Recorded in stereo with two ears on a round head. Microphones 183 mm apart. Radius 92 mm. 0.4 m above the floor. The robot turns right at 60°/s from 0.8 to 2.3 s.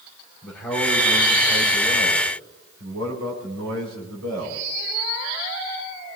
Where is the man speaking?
170° left, 7.5 m; by 4.7 s 100° right, 7.5 m.